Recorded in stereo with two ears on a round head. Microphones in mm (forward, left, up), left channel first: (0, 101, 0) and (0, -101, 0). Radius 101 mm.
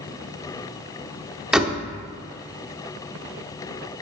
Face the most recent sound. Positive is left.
turn(degrees=-5)  # may be behind; listen again after turning